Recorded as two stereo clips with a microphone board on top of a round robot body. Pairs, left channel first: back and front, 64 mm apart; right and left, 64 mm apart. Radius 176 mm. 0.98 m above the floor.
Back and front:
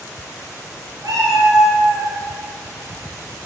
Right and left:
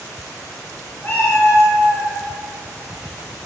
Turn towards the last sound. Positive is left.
turn(degrees=60)